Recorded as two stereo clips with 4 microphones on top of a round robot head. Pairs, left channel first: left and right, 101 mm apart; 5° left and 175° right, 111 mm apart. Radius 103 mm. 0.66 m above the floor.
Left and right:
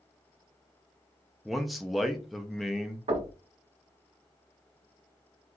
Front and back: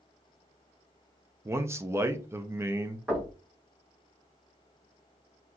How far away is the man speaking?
About 0.6 m.